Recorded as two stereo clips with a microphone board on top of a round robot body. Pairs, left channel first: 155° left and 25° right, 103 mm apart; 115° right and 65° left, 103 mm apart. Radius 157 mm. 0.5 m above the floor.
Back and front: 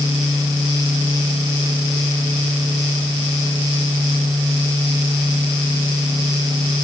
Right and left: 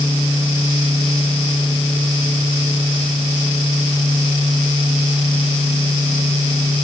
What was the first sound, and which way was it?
Only background noise.